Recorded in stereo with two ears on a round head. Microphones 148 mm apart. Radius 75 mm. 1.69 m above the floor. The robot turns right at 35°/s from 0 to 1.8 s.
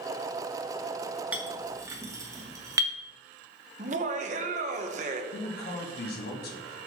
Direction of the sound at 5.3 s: 65° left (ahead or behind).